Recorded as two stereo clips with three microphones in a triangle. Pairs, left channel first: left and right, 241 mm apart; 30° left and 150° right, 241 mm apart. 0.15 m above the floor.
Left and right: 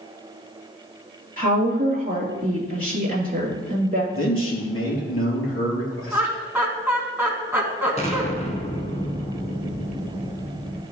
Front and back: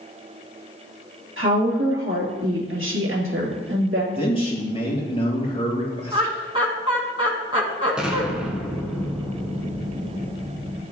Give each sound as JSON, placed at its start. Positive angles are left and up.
{"t": 1.4, "sound": "a woman speaking", "azimuth_deg": -140, "distance_m": 3.0}
{"t": 4.1, "sound": "a man speaking", "azimuth_deg": 95, "distance_m": 3.0}
{"t": 6.1, "sound": "laughter", "azimuth_deg": -155, "distance_m": 1.7}
{"t": 8.0, "sound": "an explosion", "azimuth_deg": 125, "distance_m": 1.3}